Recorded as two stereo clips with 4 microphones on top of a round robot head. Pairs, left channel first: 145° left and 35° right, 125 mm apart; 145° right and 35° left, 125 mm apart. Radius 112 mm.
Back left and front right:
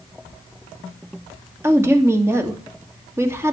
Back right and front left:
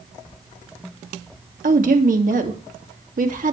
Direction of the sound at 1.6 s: 35° left.